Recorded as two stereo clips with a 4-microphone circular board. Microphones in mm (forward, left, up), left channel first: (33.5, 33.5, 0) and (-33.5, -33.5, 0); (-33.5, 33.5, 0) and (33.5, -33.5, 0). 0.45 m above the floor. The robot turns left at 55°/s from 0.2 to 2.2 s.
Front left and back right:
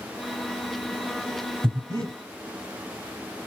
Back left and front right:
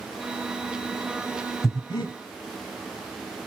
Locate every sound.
1.6 s breathing: 165° right, 1.8 m; by 2.1 s 170° left, 1.8 m